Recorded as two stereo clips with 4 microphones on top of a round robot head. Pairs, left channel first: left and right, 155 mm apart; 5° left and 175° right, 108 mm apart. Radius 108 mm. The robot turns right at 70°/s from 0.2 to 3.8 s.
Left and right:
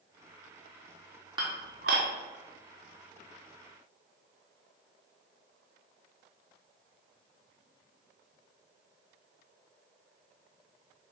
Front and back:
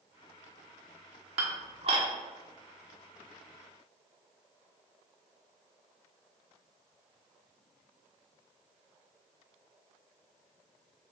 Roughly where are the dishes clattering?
Behind right.